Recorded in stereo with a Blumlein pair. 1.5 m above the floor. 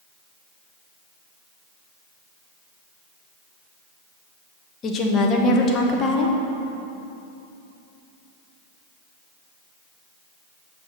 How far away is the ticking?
I don't hear ticking.